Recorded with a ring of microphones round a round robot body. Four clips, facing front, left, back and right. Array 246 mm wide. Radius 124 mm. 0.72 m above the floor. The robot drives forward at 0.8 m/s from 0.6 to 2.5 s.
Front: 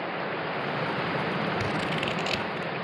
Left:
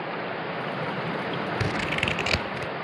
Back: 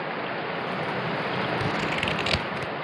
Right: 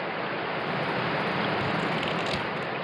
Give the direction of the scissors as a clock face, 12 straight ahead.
9 o'clock.